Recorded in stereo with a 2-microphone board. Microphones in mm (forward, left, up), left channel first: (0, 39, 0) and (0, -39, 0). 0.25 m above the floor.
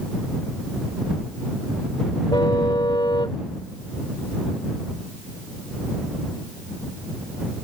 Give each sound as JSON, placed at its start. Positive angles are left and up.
{"t": 2.3, "sound": "a car horn", "side_deg": 65}